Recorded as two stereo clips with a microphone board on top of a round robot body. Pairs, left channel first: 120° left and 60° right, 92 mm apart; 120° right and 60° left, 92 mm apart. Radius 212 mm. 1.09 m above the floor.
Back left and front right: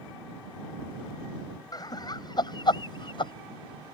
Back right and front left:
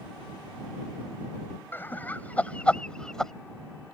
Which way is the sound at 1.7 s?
170° left.